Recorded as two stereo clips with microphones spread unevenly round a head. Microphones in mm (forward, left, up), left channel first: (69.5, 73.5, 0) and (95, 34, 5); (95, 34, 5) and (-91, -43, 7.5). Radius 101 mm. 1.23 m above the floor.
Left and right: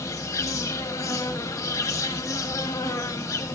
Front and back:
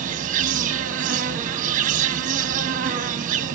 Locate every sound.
0.0 s an insect: 150° left, 1.2 m